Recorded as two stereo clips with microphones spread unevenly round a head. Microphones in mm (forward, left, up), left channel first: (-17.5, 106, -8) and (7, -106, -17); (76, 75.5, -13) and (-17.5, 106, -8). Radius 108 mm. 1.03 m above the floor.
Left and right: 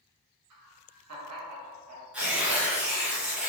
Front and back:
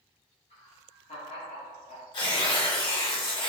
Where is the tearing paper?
Straight ahead, 1.2 m.